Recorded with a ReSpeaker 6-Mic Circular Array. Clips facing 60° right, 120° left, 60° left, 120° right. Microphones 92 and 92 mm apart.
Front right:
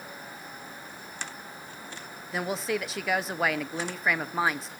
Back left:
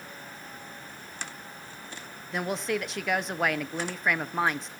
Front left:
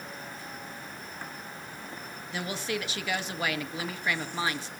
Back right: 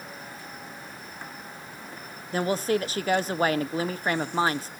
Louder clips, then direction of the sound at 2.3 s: Even, back right 9 dB; 145° right.